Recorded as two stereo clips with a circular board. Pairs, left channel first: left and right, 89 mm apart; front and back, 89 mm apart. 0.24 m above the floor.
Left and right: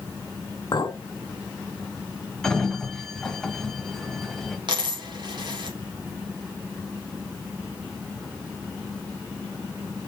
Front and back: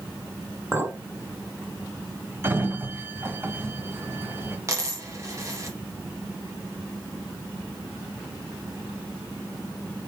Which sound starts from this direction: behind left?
A clink, at 0.7 s.